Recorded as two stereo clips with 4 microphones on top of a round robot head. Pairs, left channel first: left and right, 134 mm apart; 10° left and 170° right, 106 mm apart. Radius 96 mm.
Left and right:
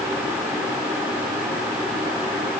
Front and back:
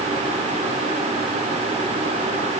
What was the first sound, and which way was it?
Only background noise.